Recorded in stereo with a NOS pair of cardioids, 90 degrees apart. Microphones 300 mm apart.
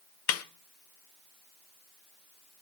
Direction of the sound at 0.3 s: 55° left.